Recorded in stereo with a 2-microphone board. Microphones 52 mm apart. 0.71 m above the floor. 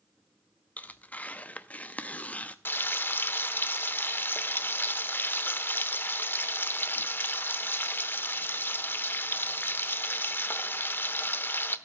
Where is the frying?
45° left (ahead or behind), 0.9 m.